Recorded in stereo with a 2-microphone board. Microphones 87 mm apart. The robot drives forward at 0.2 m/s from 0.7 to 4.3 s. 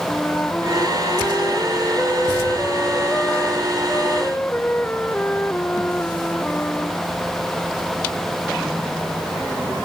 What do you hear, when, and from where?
0.1 s a flute: 20° left (ahead or behind)